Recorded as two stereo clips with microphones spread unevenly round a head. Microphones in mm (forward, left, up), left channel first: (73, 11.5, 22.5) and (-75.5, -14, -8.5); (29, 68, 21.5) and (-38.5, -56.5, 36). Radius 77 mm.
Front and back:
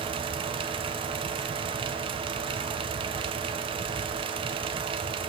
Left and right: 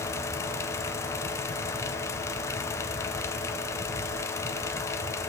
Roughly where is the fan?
Behind left.